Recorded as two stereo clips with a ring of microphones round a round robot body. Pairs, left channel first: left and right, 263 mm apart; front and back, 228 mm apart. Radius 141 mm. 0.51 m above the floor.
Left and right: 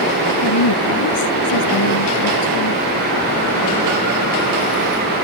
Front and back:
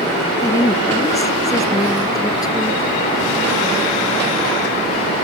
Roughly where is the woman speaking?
Left.